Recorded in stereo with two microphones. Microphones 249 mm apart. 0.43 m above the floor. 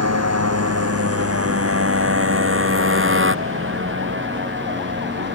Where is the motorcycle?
85° right; by 5.4 s 45° right (ahead or behind).